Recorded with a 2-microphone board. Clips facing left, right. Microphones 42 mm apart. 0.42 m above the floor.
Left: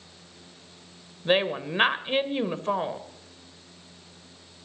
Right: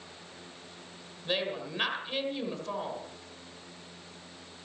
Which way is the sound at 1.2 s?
40° left (ahead or behind).